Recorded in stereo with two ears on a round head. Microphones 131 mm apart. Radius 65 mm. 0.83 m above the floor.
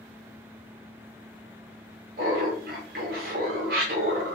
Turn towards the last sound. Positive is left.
turn(degrees=-70)  # may be behind; listen again after turning